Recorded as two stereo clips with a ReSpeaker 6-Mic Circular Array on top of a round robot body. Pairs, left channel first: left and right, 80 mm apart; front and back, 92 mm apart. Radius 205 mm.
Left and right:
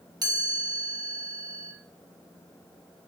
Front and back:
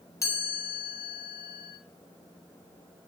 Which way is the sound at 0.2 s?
55° right.